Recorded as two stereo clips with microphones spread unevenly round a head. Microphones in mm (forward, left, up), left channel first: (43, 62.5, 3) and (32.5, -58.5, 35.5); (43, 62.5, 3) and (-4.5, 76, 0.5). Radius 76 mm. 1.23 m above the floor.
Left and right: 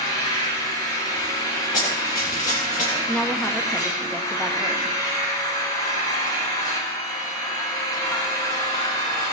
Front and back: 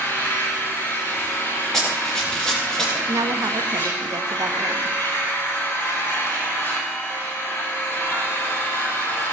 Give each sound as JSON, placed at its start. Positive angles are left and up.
{"t": 0.0, "sound": "an engine running", "azimuth_deg": 30, "distance_m": 8.5}
{"t": 1.7, "sound": "running footsteps", "azimuth_deg": 65, "distance_m": 6.0}
{"t": 3.1, "sound": "a woman speaking", "azimuth_deg": 170, "distance_m": 1.1}